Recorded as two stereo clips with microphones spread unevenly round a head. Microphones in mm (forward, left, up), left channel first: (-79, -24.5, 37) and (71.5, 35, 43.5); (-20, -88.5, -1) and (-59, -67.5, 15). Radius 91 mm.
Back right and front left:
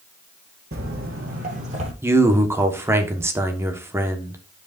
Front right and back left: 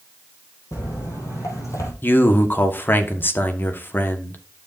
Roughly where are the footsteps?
Ahead.